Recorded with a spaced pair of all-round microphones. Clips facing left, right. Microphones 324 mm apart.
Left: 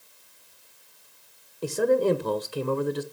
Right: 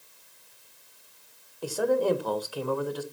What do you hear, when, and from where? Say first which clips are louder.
1.6 s a man speaking: left 3 dB; 30° left (ahead or behind), 0.7 m